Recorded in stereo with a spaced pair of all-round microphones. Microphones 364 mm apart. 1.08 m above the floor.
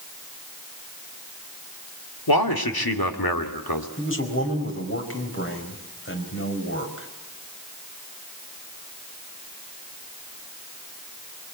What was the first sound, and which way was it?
A man speaking, 75° left (ahead or behind).